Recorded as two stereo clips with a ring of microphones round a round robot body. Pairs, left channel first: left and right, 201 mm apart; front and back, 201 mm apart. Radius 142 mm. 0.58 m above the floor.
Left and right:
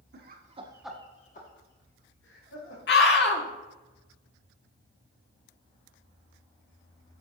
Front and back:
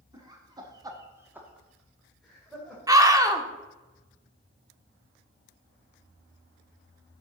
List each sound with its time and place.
0.1 s laughter: 110° right, 1.3 m; by 2.8 s 90° left, 2.5 m
2.9 s a scream: 110° left, 1.3 m